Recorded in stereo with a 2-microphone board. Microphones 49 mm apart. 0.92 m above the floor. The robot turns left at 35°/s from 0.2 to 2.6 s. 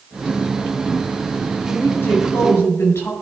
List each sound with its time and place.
1.7 s a woman speaking: 125° left, 3.5 m; by 3.1 s 90° left, 3.5 m